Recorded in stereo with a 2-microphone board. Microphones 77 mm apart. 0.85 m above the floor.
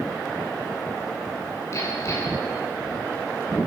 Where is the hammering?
40° left (ahead or behind), 7.5 m.